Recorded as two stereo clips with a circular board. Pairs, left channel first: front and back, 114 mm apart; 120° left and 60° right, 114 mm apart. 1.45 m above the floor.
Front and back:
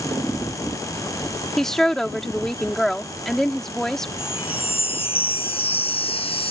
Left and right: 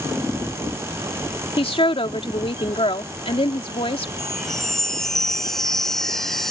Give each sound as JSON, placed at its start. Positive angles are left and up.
{"t": 1.6, "sound": "a woman speaking", "azimuth_deg": 85}
{"t": 4.2, "sound": "a chime", "azimuth_deg": 35}